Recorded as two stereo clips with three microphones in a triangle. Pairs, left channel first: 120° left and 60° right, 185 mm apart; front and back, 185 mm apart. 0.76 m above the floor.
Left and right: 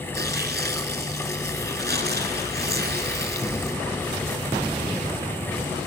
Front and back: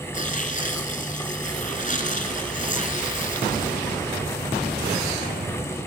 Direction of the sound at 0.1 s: 40° right.